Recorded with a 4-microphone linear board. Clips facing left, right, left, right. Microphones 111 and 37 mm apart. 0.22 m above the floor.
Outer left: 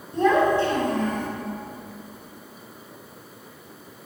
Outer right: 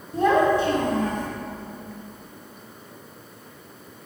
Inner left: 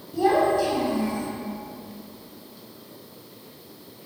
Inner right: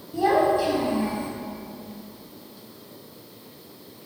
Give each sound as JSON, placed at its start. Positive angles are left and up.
{"t": 0.1, "sound": "a child speaking", "side_deg": -5, "distance_m": 0.9}